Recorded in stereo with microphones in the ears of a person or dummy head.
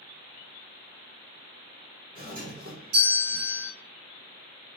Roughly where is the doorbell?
Right.